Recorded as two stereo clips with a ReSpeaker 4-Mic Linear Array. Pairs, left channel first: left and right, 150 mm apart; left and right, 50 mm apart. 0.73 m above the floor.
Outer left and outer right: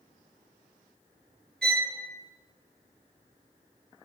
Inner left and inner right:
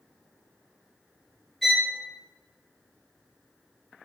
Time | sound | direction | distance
1.6 | a violin | 5° left (ahead or behind) | 1.0 m